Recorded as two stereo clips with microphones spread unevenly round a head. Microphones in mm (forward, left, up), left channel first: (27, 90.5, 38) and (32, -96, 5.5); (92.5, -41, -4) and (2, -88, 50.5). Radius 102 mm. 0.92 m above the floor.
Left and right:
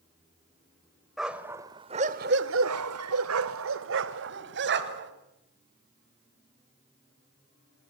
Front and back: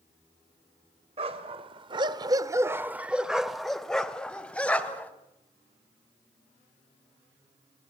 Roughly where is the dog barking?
Behind.